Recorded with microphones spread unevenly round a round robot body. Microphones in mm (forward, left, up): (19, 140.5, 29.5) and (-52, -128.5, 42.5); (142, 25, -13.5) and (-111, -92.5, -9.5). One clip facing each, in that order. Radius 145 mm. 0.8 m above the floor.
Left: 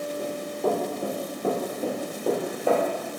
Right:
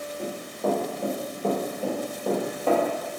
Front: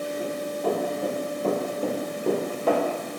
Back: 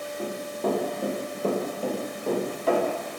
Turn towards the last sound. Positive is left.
turn(degrees=-5)